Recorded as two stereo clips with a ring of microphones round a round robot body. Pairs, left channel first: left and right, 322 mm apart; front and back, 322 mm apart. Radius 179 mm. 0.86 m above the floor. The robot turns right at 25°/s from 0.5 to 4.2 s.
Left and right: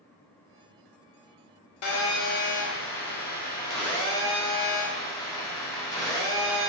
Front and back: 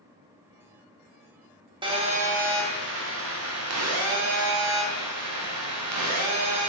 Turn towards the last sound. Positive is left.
turn(degrees=165)